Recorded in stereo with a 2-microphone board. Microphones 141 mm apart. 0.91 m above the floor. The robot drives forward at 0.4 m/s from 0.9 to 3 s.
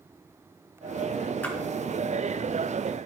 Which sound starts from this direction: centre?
A splash, at 1.4 s.